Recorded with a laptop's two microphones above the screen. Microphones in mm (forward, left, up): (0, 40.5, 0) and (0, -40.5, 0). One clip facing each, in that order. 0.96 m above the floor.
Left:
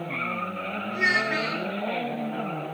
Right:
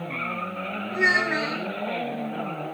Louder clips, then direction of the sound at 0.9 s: Right 3 dB; 25° right (ahead or behind).